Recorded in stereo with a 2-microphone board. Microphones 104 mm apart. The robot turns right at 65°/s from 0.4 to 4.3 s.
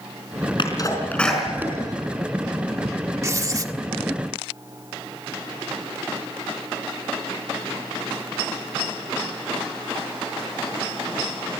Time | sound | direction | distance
0.6 | a sneeze | 50° left (ahead or behind) | 5 m
3.2 | writing | 130° right | 1.5 m